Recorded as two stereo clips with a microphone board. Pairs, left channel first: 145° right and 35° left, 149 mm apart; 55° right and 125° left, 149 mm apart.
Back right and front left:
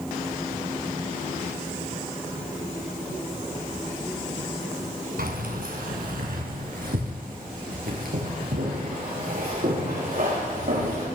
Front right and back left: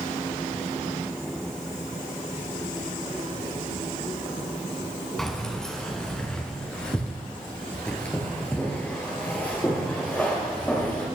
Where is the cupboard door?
No cupboard door in this recording.